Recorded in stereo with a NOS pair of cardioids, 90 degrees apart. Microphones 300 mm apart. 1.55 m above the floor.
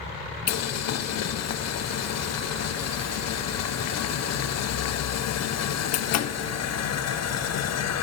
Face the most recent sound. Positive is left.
turn(degrees=60)